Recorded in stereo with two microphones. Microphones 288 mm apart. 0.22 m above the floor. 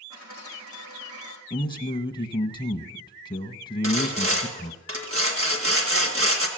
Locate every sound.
0.1 s a dropped coin: 85° right, 5.5 m
1.5 s a man speaking: 15° left (ahead or behind), 1.3 m
3.8 s sawing: 50° right (ahead or behind), 1.7 m